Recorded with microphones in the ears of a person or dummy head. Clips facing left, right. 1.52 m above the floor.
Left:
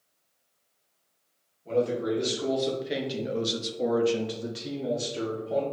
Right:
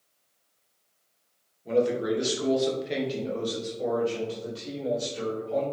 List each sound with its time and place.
1.6 s a man speaking: 20° right (ahead or behind), 1.3 m; by 5.6 s 70° left (ahead or behind), 1.3 m